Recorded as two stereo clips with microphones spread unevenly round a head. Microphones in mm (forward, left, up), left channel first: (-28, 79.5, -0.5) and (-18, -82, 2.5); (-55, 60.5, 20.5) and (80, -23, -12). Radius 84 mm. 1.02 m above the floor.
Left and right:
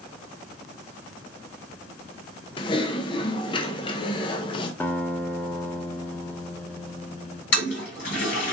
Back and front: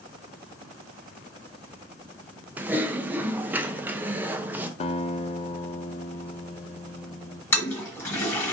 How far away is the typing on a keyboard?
About 0.5 m.